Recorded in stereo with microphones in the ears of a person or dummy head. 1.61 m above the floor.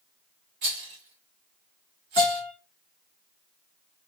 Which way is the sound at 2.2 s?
30° left (ahead or behind).